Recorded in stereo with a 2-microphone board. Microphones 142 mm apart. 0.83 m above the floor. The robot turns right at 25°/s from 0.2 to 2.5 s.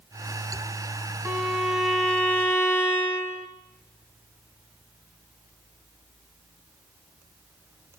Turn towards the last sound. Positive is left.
turn(degrees=15)